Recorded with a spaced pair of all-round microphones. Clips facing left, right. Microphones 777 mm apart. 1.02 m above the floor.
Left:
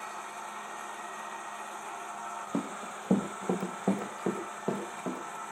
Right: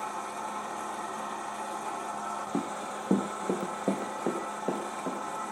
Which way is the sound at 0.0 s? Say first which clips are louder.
Right 7 dB; 65° right (ahead or behind).